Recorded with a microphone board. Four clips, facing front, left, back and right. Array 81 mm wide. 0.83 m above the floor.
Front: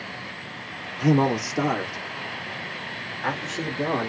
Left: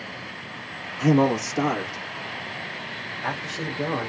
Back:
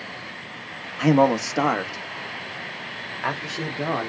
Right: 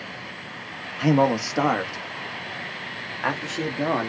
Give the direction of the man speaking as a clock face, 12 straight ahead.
5 o'clock.